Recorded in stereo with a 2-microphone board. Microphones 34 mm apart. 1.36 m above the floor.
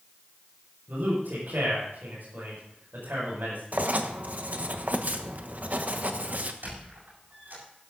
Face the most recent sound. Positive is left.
turn(degrees=-80)